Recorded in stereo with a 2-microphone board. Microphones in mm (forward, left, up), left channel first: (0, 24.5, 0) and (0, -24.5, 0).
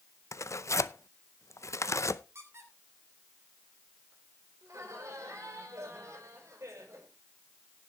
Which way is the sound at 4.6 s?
85° right.